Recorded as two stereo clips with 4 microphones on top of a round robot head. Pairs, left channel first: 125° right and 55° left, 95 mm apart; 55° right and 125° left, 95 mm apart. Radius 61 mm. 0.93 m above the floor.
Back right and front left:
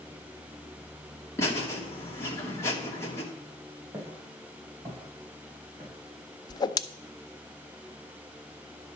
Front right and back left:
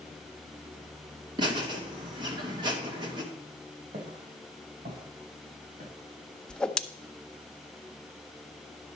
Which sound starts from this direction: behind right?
A whoosh, at 6.5 s.